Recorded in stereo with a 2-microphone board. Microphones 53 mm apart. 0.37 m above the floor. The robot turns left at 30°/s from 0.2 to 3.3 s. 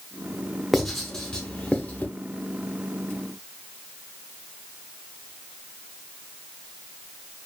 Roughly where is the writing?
Centre.